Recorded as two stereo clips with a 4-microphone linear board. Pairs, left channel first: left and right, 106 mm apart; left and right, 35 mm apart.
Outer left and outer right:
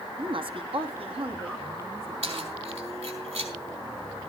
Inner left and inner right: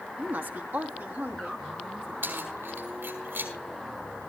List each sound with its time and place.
0.2 s a woman speaking: 50° right (ahead or behind), 1.1 m; by 2.5 s 65° right (ahead or behind), 2.5 m
2.2 s keys jangling: 90° right, 4.5 m